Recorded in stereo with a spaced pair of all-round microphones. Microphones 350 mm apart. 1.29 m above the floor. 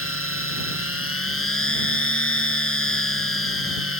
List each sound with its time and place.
0.0 s a machine running: 40° left (ahead or behind)